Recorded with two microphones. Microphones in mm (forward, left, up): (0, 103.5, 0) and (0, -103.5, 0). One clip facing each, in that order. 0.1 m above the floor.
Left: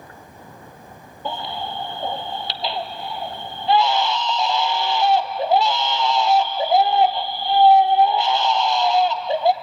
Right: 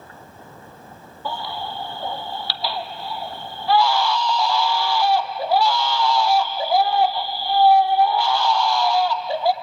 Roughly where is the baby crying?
Left.